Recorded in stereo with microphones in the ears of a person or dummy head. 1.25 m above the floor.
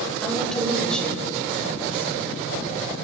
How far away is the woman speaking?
About 6 m.